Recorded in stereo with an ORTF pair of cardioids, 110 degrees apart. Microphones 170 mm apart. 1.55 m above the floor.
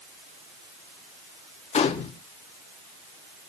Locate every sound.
1.7 s a gunshot: 45° left, 2 m